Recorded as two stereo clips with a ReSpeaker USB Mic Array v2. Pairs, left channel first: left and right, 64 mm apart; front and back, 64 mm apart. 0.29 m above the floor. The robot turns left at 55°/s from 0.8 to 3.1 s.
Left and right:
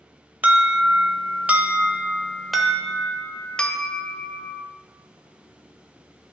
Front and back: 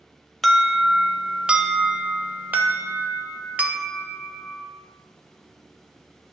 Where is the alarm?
85° right, 0.9 m; by 4.6 s 145° left, 0.9 m.